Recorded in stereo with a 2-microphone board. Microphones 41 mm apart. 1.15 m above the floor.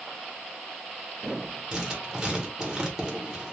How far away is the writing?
About 1.0 m.